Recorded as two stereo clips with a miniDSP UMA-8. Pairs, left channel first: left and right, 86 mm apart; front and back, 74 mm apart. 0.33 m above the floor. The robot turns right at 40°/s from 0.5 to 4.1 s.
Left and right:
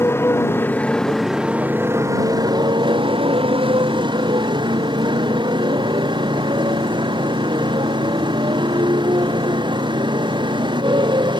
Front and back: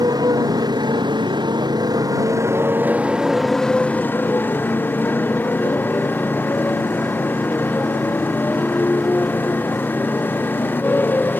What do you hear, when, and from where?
0.0 s a motorcycle: 150° left; by 11.4 s 65° right